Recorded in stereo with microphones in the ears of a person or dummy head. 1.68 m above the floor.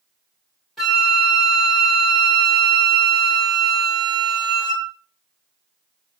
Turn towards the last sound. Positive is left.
turn(degrees=0)  # may be behind; listen again after turning